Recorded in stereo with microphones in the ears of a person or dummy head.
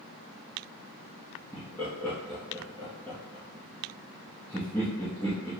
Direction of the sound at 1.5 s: 10° left (ahead or behind).